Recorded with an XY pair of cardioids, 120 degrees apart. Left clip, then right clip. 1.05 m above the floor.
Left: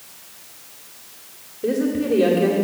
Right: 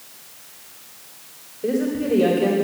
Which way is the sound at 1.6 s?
15° left.